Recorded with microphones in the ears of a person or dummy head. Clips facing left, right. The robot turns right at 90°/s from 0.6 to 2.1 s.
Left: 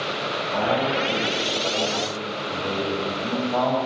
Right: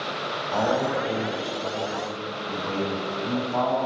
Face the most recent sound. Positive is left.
turn(degrees=60)